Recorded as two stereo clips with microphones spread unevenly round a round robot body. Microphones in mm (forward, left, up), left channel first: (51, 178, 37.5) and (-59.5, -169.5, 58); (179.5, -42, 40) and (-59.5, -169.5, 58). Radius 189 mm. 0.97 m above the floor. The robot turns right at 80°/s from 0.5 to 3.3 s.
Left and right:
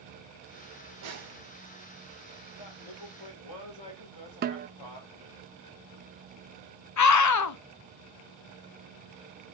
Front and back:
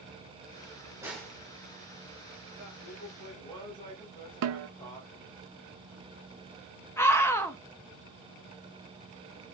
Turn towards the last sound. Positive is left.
turn(degrees=110)